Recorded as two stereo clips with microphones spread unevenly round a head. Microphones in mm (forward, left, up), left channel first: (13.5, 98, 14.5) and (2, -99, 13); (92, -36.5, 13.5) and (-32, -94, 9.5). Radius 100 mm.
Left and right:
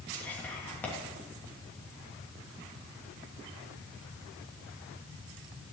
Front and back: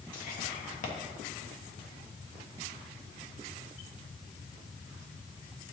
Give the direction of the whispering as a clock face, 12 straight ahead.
12 o'clock.